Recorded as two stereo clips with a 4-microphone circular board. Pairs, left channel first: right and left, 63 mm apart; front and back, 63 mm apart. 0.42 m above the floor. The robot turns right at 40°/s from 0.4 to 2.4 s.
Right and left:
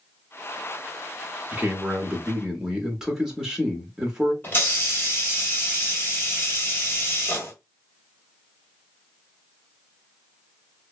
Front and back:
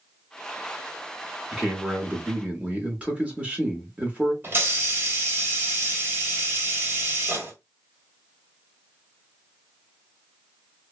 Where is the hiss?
140° right, 1.1 m.